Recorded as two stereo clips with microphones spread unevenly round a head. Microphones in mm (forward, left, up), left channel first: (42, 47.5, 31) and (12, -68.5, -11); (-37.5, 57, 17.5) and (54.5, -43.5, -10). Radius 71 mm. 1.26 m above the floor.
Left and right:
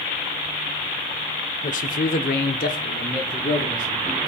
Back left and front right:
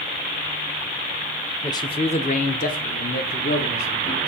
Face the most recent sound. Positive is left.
turn(degrees=120)